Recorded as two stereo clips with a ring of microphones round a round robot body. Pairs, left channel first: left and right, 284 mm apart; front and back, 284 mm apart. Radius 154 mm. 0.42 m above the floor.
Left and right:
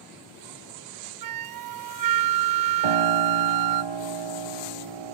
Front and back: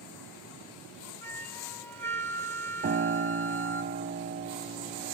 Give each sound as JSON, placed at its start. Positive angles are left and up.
{"t": 1.2, "sound": "a flute", "azimuth_deg": -85, "distance_m": 0.5}
{"t": 2.8, "sound": "a piano", "azimuth_deg": -115, "distance_m": 0.5}